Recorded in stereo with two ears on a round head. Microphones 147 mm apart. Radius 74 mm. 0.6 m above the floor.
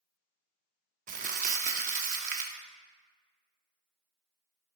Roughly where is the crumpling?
Right.